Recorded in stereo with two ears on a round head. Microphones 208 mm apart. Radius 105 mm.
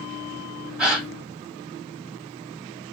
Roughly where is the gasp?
Centre.